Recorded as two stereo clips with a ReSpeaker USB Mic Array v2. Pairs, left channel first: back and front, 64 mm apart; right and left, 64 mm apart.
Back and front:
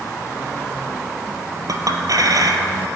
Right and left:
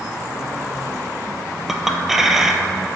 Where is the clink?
5° left, 1.3 m.